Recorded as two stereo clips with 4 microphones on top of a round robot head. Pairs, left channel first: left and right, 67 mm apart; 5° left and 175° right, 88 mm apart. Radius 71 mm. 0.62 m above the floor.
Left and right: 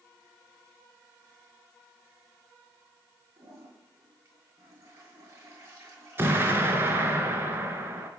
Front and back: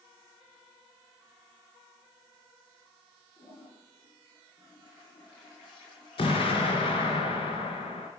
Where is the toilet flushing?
45° right, 9 m.